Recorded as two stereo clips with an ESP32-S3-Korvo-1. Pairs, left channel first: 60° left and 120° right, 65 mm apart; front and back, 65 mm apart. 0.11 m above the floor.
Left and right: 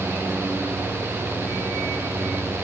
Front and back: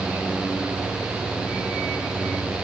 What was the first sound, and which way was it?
Only background noise.